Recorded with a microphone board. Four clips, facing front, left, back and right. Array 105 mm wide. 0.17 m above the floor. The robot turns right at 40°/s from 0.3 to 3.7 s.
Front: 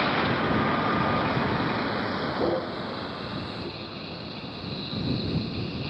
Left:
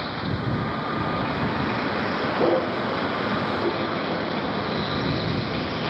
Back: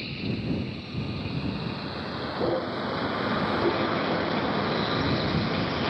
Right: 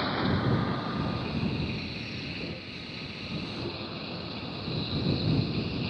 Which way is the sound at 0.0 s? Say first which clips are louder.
Even, front 8 dB; straight ahead.